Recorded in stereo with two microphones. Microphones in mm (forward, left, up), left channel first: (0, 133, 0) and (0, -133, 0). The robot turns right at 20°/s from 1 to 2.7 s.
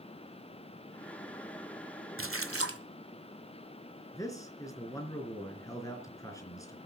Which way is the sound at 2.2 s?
50° right (ahead or behind).